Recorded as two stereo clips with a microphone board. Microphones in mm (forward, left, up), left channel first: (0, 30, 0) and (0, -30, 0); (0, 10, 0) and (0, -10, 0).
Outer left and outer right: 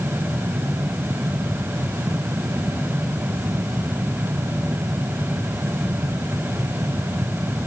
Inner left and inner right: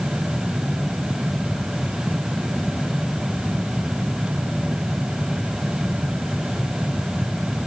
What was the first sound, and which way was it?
Only background noise.